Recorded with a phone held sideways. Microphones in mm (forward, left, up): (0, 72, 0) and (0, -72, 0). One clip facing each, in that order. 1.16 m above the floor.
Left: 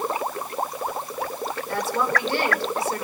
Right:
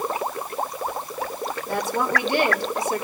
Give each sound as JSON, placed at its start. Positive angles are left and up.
{"t": 1.7, "sound": "a woman speaking", "side_deg": -20, "distance_m": 4.0}